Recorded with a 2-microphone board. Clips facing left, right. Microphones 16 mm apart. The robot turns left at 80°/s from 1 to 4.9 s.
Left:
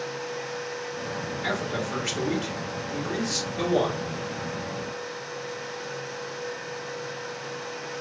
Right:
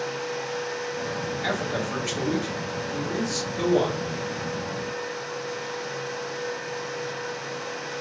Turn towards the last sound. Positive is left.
turn(degrees=-75)